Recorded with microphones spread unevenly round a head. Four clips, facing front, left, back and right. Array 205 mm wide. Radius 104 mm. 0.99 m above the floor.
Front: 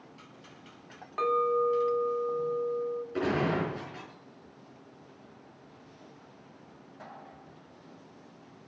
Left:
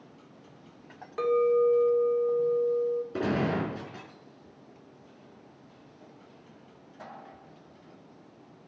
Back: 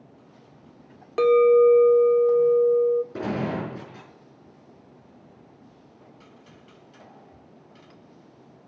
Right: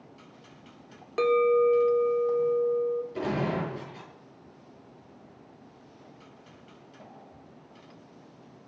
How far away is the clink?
About 0.7 m.